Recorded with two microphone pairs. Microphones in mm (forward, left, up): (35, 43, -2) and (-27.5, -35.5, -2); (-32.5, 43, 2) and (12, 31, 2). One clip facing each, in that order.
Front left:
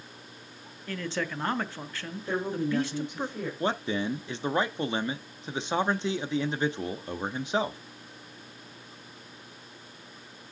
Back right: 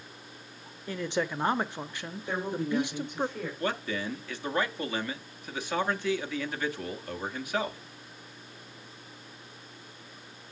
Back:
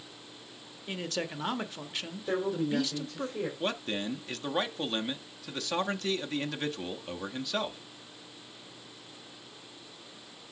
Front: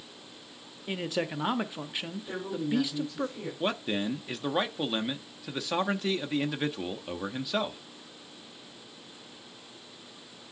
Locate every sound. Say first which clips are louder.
0.9 s a man speaking: back right 2 dB, front 4 dB; 80° right, 0.6 m
2.3 s a woman speaking: front left 2 dB, back 3 dB; 130° left, 3 m
3.6 s a man speaking: front left 4 dB, front 7 dB; 60° left, 0.6 m